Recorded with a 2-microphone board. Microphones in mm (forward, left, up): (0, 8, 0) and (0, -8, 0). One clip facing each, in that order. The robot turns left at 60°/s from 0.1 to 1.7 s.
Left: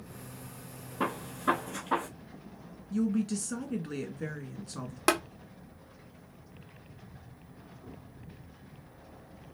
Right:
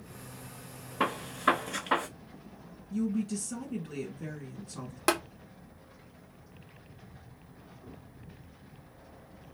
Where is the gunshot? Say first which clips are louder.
Right 3 dB; 40° right (ahead or behind), 1.0 m; by 2.1 s 60° right (ahead or behind), 1.0 m.